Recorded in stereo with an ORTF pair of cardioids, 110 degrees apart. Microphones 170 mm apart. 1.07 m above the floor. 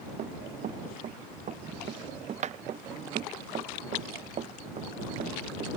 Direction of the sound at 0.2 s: 50° right.